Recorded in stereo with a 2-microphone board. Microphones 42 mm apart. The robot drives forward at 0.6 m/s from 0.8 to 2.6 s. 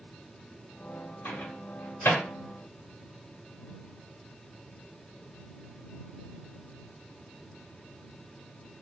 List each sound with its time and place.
1.2 s a microwave: 60° left (ahead or behind), 1.4 m; by 2.2 s 70° left (ahead or behind), 1.3 m